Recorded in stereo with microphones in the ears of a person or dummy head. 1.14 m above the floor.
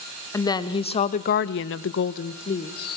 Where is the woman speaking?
10° left (ahead or behind), 1.7 m; by 3.0 s 40° left (ahead or behind), 1.6 m.